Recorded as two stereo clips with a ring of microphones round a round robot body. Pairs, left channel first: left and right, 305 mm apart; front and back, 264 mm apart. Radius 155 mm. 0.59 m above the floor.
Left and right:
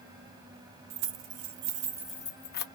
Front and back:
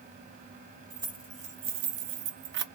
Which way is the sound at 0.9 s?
105° right.